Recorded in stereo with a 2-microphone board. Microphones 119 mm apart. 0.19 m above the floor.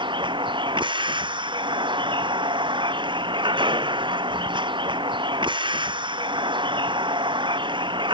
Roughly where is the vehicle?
Right.